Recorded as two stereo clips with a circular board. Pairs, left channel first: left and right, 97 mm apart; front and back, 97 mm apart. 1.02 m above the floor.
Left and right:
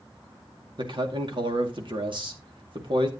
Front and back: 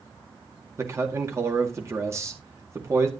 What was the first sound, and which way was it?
A man speaking, 120° right.